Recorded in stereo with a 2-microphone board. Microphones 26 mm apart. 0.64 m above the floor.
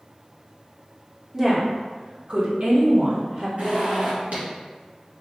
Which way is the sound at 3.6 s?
75° right (ahead or behind).